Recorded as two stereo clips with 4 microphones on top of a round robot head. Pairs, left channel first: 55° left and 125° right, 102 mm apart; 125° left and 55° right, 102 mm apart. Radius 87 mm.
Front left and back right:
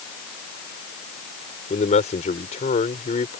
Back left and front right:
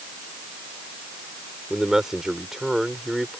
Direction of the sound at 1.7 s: 30° left.